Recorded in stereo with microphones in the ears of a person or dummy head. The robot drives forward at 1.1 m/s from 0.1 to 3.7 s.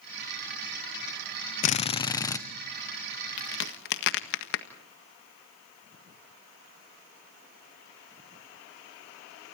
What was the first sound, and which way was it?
A drill, 50° left (ahead or behind).